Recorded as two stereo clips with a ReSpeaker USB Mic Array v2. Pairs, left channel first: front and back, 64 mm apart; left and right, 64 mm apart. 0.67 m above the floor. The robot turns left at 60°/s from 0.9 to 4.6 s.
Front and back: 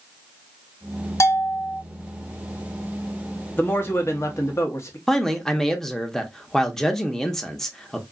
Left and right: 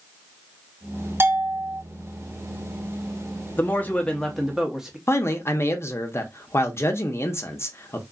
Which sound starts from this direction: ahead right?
A bell, at 1.2 s.